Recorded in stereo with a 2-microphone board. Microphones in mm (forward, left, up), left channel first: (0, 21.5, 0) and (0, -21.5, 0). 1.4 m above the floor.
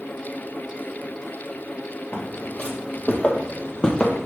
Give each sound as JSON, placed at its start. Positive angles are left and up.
{"t": 2.1, "sound": "footsteps", "side_deg": 45, "distance_m": 2.0}